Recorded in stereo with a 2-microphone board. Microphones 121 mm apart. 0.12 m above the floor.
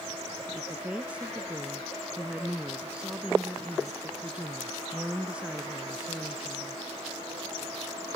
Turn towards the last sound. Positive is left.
turn(degrees=-10)  # may be behind; listen again after turning